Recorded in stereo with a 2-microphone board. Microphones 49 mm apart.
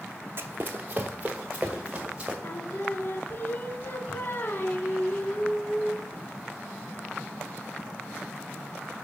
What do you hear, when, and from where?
0.4 s running footsteps: 45° right (ahead or behind), 0.5 m; by 2.3 s 20° right (ahead or behind), 1.7 m
2.4 s singing: 45° left (ahead or behind), 0.6 m